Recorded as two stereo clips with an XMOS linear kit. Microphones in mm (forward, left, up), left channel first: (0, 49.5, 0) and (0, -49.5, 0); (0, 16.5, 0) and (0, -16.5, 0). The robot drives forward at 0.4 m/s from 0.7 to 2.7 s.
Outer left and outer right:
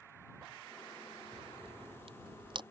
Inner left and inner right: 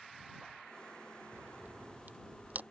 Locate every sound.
1.3 s a crack: 80° right; by 2.6 s 55° right (ahead or behind)